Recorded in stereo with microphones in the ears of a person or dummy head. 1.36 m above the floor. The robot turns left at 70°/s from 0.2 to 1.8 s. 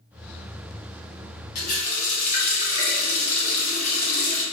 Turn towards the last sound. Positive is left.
turn(degrees=40)  # may be behind; listen again after turning